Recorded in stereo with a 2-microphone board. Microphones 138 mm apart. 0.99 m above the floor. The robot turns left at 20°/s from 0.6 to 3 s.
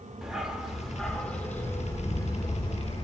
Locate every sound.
0.2 s a dog barking: 175° right, 1.0 m; by 3.0 s 135° left, 1.0 m